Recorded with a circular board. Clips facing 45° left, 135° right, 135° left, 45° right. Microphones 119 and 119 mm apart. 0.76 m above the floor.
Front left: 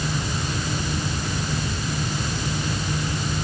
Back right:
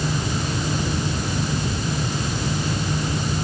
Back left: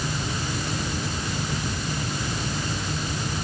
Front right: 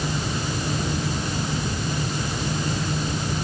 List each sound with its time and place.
Only background noise.